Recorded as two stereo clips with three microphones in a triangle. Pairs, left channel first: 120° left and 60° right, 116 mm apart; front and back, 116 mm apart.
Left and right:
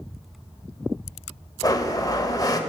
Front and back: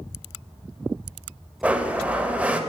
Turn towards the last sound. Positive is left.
turn(degrees=110)